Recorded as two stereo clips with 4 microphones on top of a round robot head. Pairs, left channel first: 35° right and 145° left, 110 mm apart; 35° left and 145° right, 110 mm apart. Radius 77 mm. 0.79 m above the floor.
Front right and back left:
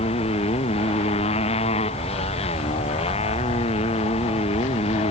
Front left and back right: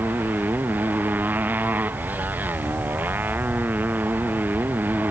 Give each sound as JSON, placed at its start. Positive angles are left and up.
{"t": 0.0, "sound": "a motorcycle", "azimuth_deg": -70}